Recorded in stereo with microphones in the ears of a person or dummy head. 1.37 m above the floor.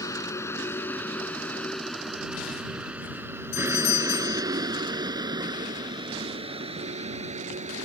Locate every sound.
0.0 s a vehicle: 20° left (ahead or behind); by 7.8 s 30° right (ahead or behind)
3.5 s a doorbell: 80° left